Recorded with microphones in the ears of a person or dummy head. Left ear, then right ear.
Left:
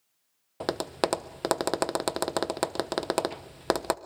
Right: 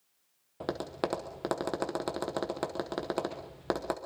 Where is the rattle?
No rattle in this recording.